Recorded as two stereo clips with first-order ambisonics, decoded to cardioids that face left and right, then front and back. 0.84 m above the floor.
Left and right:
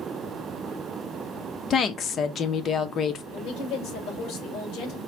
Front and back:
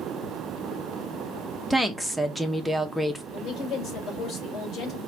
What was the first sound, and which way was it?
A woman speaking, 85° left.